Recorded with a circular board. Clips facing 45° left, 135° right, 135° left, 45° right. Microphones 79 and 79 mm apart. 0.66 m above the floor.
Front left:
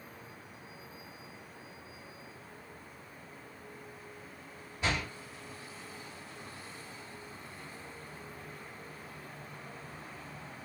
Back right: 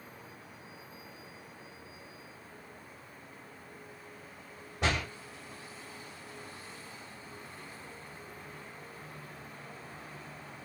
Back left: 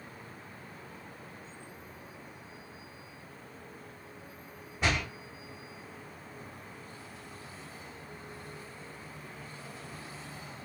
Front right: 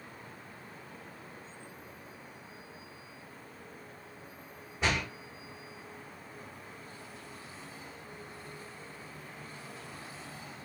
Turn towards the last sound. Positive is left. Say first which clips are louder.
# back right 2 dB, back left 1 dB
turn(degrees=-135)